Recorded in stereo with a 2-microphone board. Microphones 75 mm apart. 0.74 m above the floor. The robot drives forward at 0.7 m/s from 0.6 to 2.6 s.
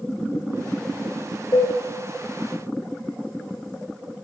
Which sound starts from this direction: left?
Dishes clattering, at 1.5 s.